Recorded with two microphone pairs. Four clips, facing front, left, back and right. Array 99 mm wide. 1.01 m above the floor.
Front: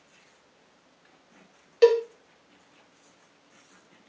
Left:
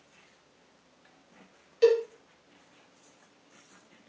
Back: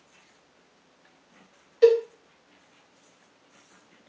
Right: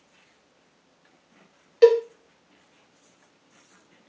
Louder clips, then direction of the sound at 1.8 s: Right 6 dB, back 1 dB; 45° right.